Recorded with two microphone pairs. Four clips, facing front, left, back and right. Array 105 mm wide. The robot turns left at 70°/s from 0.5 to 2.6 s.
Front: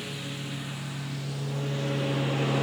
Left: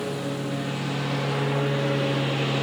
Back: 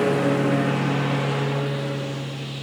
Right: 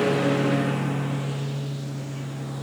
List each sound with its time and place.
0.0 s a lawn mower: 150° right; by 2.6 s 50° left